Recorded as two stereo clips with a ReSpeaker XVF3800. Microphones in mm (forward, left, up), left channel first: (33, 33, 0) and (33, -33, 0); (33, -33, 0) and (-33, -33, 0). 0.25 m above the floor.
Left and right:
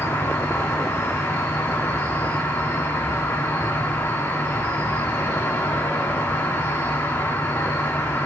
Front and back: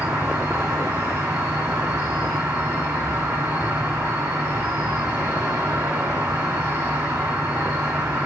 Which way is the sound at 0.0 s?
130° left.